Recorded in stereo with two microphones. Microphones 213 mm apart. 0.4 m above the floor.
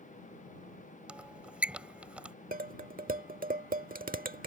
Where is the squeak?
5° right (ahead or behind).